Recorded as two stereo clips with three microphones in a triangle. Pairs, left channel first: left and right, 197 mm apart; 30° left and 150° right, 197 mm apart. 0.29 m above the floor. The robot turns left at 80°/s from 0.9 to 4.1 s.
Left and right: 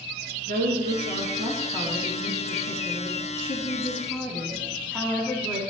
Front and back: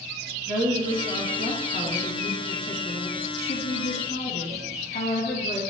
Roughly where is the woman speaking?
Right.